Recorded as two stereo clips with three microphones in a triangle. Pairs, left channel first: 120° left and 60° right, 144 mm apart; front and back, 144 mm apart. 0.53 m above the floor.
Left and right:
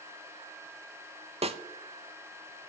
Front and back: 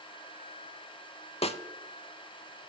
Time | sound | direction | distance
1.4 | a snare drum | 30° right | 0.5 m